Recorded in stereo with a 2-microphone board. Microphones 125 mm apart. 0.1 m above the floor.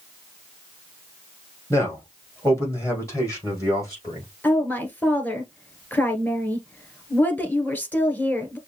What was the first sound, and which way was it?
A man speaking, 20° left (ahead or behind).